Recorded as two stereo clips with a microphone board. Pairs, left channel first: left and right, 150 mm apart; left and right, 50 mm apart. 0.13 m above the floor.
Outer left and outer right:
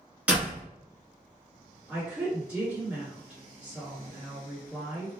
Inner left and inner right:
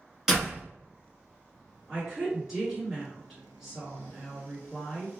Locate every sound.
0.3 s a door slam: 10° right (ahead or behind), 1.0 m
1.9 s a woman speaking: 10° right (ahead or behind), 1.8 m